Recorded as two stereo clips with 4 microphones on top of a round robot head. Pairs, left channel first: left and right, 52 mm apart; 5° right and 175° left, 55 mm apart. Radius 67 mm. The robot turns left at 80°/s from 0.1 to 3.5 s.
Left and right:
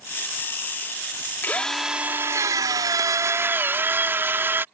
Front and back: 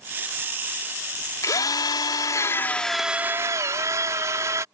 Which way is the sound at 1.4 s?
30° left.